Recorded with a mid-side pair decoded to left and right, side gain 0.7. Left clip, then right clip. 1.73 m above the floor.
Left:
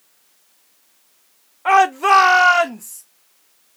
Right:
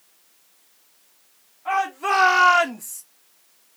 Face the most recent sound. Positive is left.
turn(degrees=-10)